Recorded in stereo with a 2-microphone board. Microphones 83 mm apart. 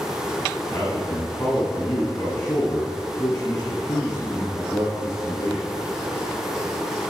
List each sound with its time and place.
0.7 s a man speaking: 45° left (ahead or behind), 3 m